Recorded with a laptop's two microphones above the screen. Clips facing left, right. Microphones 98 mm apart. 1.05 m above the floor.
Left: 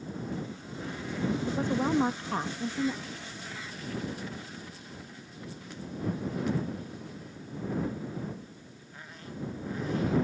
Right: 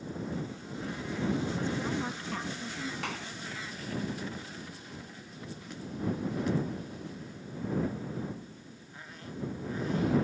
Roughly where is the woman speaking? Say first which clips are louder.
Left 5 dB; left.